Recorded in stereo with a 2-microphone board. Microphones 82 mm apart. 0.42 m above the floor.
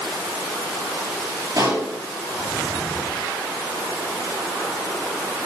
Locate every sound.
1.6 s a pop: 45° right (ahead or behind), 7 m